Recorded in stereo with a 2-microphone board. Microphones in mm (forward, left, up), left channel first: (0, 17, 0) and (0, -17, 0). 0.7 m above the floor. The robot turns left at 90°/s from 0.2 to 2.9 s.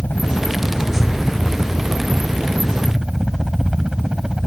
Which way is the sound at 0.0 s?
80° left.